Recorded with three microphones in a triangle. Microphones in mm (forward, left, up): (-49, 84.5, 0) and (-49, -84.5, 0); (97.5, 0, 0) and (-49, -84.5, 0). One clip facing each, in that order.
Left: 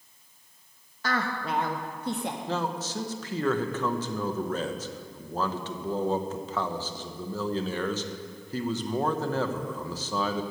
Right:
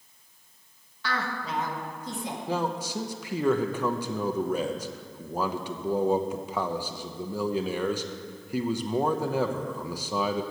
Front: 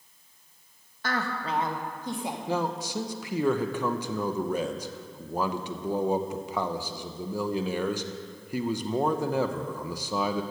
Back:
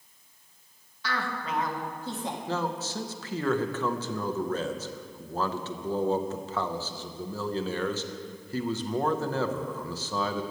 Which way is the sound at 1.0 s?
55° left.